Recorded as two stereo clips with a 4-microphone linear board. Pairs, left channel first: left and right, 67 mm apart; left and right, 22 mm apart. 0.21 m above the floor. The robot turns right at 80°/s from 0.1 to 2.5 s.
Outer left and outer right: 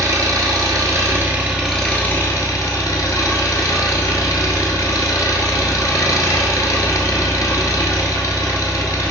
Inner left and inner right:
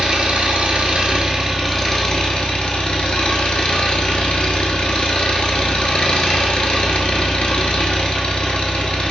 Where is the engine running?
130° right, 0.9 m; by 9.1 s 60° left, 0.9 m.